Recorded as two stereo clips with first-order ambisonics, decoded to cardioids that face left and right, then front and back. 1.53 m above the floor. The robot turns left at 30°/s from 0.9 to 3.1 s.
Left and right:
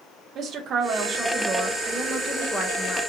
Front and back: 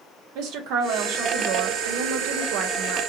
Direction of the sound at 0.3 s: 145° right.